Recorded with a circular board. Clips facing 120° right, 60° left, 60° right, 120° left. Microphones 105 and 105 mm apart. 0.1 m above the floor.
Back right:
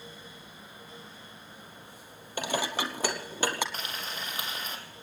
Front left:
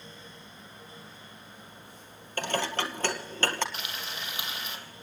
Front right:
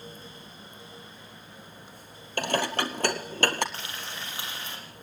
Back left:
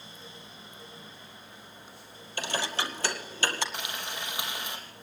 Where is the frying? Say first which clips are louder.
Back right 1 dB, back left 2 dB; 165° right, 4.5 m.